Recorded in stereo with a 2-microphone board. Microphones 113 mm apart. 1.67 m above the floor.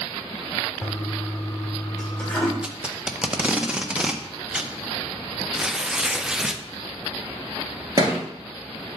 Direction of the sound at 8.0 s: 35° right (ahead or behind).